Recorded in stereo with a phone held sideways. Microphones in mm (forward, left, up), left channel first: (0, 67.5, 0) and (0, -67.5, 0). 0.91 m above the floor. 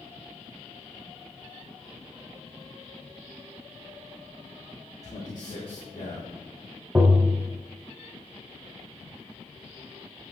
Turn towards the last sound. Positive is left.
turn(degrees=-15)  # may be behind; listen again after turning